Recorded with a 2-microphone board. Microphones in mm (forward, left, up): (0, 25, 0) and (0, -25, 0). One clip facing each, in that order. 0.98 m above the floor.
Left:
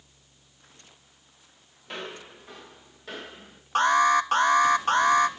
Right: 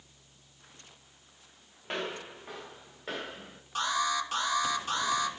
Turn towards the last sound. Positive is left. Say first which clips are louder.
# left 10 dB
turn(degrees=50)  # may be behind; listen again after turning